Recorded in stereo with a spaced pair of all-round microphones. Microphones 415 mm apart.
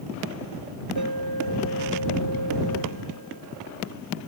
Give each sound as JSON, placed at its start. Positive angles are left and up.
{"t": 1.0, "sound": "an alarm", "side_deg": -60}